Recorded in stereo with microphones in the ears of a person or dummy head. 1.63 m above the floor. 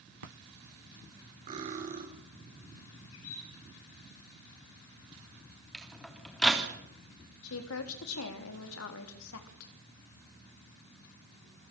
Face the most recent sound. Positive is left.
turn(degrees=85)